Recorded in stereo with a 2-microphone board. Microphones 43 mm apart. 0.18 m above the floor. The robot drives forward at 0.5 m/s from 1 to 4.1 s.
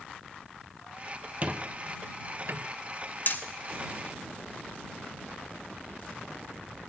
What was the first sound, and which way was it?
A squeak, 35° right (ahead or behind).